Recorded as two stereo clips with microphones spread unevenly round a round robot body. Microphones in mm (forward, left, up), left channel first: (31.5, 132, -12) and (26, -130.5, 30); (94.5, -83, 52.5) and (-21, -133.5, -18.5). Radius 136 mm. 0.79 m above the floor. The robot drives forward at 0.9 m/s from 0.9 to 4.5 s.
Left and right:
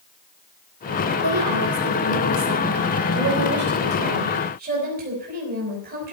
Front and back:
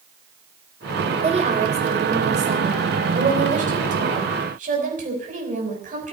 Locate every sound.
1.2 s a woman speaking: 130° right, 3 m; by 6.1 s 155° right, 5.5 m